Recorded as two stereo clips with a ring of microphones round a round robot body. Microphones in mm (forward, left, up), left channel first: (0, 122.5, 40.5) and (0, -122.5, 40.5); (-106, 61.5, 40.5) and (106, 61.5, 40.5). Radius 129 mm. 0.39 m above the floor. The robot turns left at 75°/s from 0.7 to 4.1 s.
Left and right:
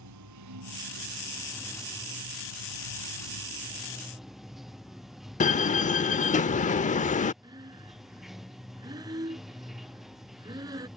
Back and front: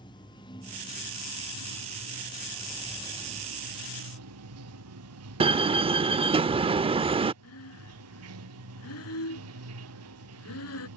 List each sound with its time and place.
0.0 s running water: 105° right; by 11.0 s straight ahead
5.4 s a door slam: 50° left
7.4 s breathing: 165° right